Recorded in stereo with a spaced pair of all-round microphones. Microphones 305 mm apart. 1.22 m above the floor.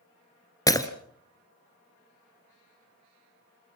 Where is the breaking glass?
10° left (ahead or behind), 1.7 m.